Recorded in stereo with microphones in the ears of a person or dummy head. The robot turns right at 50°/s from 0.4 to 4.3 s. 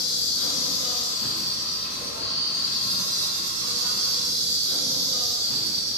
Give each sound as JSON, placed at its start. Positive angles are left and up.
{"t": 0.0, "sound": "an insect", "azimuth_deg": 105, "distance_m": 0.8}